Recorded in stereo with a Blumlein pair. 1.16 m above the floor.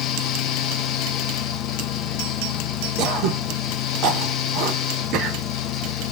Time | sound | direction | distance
0.0 | a fan | 35° left | 0.8 m
3.0 | throat clearing | 35° right | 0.9 m